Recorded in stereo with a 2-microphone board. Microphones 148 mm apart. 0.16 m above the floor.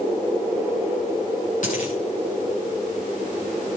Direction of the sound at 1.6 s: 60° left (ahead or behind).